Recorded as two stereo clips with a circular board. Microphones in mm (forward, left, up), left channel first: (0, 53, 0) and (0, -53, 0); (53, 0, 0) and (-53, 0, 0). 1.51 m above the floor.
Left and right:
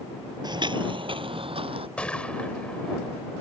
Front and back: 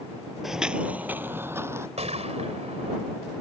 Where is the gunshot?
170° left.